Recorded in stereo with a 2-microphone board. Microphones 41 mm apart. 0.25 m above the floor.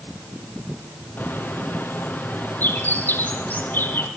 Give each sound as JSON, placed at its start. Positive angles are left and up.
{"t": 1.2, "sound": "a bird", "side_deg": 55, "distance_m": 4.0}